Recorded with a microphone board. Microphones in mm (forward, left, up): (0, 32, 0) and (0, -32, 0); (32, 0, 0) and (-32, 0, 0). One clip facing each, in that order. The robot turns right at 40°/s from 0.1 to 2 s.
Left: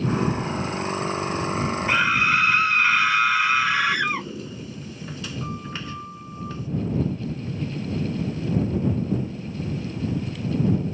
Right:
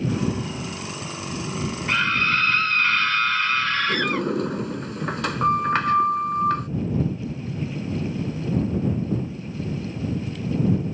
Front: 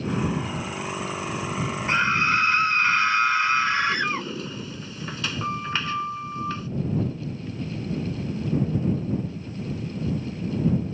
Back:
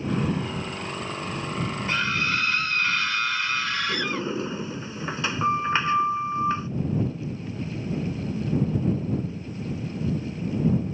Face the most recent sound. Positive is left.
turn(degrees=-115)